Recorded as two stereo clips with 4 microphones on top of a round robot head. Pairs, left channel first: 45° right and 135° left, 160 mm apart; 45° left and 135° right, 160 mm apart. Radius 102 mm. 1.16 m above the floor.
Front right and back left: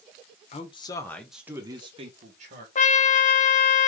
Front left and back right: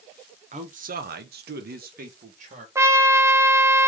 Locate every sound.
0.5 s a man speaking: 90° right, 0.9 m; by 2.6 s 175° left, 1.3 m
2.8 s a trumpet: 70° right, 0.8 m